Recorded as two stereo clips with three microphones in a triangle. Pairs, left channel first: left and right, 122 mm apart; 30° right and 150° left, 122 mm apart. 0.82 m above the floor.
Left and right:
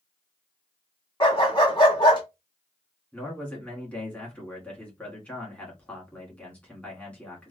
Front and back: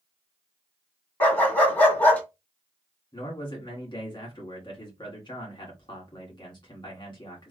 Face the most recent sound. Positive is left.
turn(degrees=10)